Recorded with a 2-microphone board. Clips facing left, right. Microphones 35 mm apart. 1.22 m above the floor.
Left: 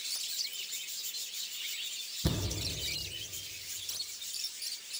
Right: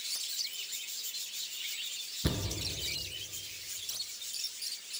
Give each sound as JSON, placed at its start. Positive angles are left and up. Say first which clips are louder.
{"t": 2.2, "sound": "a thud", "louder": "even", "side_deg": -20, "distance_m": 1.3}